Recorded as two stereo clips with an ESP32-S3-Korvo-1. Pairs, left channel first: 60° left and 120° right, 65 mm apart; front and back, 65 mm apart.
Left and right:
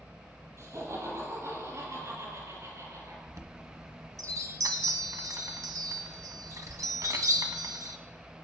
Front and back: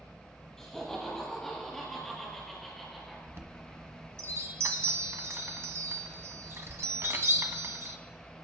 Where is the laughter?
80° right, 8 m; by 3.2 s 85° right, 5 m.